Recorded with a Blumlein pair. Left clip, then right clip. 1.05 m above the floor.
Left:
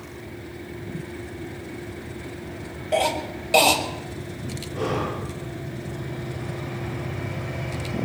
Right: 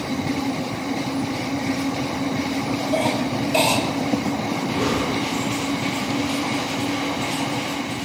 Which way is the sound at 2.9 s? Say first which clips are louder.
Left 1 dB; 35° left.